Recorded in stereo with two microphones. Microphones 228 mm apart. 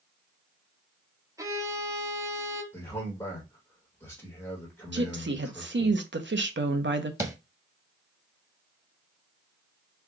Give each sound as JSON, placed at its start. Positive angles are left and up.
{"t": 1.4, "sound": "a violin", "side_deg": -15, "distance_m": 1.0}
{"t": 2.7, "sound": "a man speaking", "side_deg": 10, "distance_m": 1.3}
{"t": 4.9, "sound": "a woman speaking", "side_deg": -55, "distance_m": 0.6}
{"t": 7.2, "sound": "tapping", "side_deg": -15, "distance_m": 0.6}